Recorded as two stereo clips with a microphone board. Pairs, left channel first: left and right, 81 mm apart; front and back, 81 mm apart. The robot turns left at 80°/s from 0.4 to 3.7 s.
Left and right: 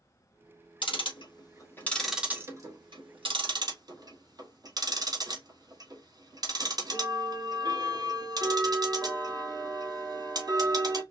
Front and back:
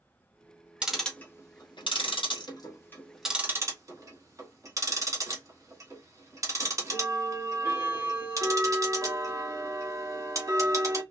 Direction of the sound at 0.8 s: 100° left.